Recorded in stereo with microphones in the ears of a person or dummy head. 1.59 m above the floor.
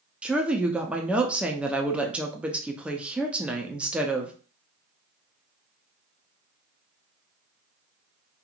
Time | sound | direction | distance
0.2 | a woman speaking | centre (ahead or behind) | 0.6 m